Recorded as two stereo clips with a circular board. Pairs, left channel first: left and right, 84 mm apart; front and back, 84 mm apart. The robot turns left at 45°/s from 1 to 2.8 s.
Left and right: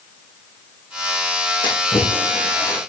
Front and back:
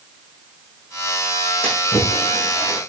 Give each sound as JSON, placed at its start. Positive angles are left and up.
{"t": 1.6, "sound": "a splash", "azimuth_deg": 75, "distance_m": 5.5}